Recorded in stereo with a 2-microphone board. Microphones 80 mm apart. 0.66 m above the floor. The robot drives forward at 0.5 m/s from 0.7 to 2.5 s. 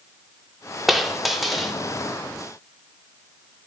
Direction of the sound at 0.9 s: Centre (ahead or behind).